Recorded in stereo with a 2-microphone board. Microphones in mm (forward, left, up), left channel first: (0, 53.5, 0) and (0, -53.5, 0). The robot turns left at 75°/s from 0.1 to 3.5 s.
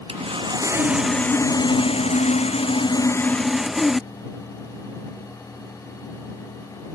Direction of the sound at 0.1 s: 105° right.